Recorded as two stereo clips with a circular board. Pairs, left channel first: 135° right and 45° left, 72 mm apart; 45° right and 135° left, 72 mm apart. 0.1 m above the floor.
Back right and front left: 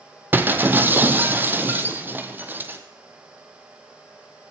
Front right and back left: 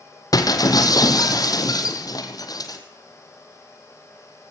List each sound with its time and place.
0.3 s breaking glass: 20° right, 1.9 m